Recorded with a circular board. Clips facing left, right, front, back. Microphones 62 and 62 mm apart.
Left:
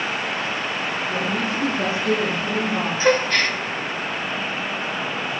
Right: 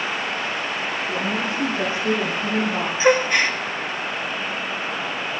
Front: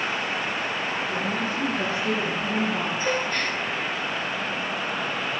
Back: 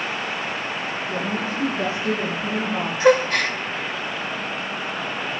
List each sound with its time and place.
1.1 s a woman speaking: 115° right, 8.5 m; by 2.9 s 105° right, 6 m
3.0 s a gasp: 165° right, 0.7 m